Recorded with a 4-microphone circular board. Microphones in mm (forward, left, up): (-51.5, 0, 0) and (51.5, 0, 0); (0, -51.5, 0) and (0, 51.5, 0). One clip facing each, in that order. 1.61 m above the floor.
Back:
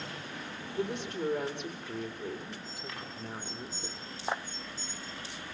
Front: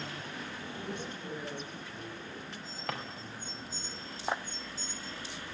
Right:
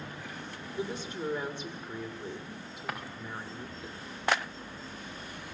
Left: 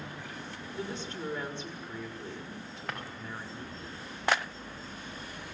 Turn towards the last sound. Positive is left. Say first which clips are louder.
# front 9 dB, right 1 dB
turn(degrees=-5)